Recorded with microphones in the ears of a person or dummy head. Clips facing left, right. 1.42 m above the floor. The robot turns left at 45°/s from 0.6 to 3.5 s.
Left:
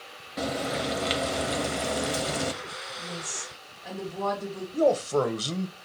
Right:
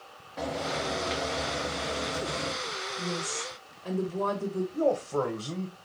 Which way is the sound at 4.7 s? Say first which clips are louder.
Left 5 dB; 45° left (ahead or behind).